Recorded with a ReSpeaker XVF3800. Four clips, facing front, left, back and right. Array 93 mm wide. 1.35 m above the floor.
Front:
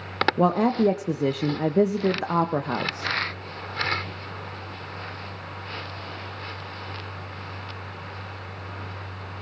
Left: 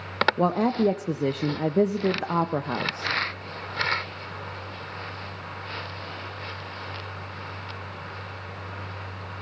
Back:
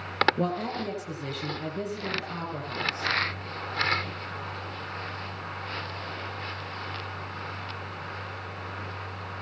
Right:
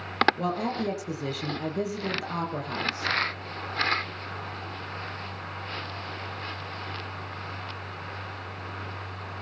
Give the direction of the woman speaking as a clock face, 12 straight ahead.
11 o'clock.